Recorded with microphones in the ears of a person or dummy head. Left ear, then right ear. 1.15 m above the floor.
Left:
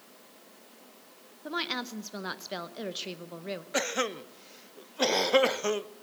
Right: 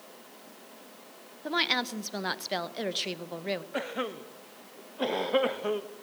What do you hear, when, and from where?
1.4 s a woman speaking: 10° right (ahead or behind), 0.7 m
3.7 s a cough: 80° left, 0.9 m